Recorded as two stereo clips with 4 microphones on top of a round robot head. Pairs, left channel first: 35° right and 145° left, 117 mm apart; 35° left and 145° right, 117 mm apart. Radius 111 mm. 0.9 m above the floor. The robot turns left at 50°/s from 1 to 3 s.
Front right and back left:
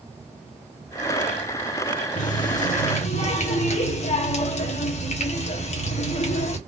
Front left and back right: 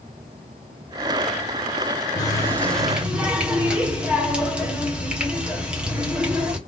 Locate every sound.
2.2 s a running tap: 20° right, 1.2 m; by 6.6 s 65° right, 1.2 m